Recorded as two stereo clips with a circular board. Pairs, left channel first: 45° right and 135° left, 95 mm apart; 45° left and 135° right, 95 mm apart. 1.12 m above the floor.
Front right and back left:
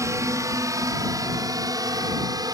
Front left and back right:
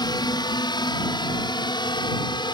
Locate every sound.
0.0 s a drone: 80° left; by 2.5 s 85° left